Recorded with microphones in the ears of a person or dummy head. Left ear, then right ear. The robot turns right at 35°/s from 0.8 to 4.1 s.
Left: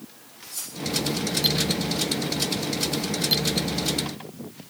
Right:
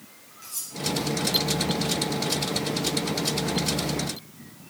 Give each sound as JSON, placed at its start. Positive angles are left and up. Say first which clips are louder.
{"t": 0.4, "sound": "cutlery clinking", "louder": "left 1 dB", "side_deg": -70, "distance_m": 6.5}